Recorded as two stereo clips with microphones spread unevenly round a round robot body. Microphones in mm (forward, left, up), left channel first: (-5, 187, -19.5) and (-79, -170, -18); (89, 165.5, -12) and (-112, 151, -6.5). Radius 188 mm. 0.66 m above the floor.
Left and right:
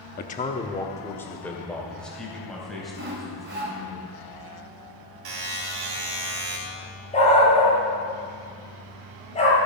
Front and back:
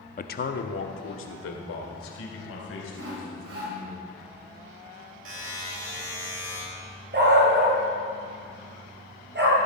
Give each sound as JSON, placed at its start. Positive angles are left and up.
{"t": 0.2, "sound": "a man speaking", "azimuth_deg": 25, "distance_m": 0.7}
{"t": 2.9, "sound": "sawing", "azimuth_deg": -160, "distance_m": 2.5}
{"t": 5.2, "sound": "a buzzer", "azimuth_deg": -125, "distance_m": 3.0}
{"t": 7.1, "sound": "a dog barking", "azimuth_deg": 150, "distance_m": 5.5}